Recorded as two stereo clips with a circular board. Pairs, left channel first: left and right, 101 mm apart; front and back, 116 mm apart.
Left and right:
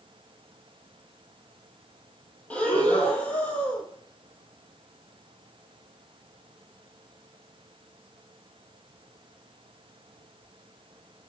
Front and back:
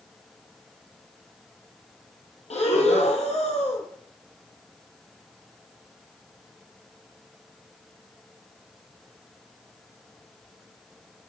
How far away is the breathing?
About 1.2 m.